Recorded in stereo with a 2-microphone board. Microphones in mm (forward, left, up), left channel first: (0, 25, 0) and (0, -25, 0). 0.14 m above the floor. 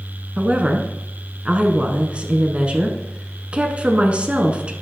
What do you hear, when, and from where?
0.4 s a woman speaking: 25° right (ahead or behind), 1.2 m